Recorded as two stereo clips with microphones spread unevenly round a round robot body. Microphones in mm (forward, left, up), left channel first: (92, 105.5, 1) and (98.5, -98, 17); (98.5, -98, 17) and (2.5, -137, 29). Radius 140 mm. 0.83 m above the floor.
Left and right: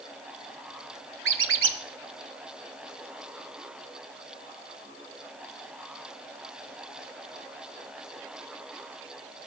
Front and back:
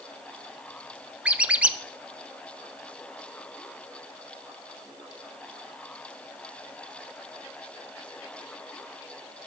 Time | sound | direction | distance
1.2 | a squeak | 80° right | 1.0 m